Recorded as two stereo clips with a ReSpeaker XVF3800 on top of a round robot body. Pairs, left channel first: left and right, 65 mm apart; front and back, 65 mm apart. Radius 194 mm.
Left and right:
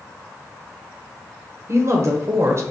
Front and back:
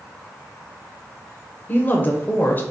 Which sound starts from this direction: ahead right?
A woman speaking, at 1.7 s.